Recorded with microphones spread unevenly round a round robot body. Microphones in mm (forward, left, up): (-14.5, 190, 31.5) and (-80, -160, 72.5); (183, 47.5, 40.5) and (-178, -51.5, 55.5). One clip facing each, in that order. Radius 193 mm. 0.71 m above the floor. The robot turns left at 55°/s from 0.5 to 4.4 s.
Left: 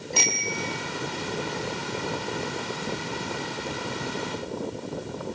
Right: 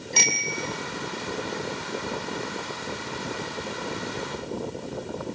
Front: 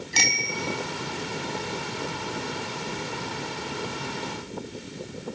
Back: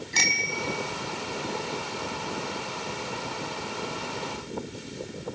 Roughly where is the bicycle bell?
Ahead right.